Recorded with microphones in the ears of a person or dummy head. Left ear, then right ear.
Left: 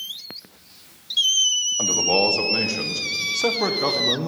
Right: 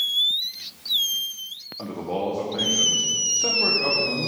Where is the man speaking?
80° left, 0.8 m.